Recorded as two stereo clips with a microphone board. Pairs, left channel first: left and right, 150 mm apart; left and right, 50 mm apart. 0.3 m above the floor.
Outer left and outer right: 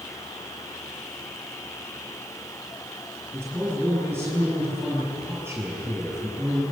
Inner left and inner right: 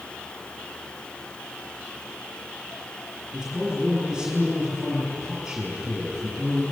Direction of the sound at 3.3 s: 15° right (ahead or behind).